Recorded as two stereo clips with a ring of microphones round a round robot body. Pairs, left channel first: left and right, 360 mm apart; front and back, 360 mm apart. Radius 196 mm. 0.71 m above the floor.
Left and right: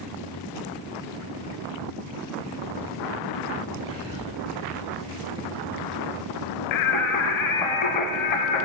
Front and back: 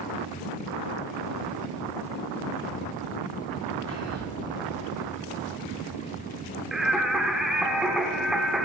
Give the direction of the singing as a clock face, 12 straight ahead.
9 o'clock.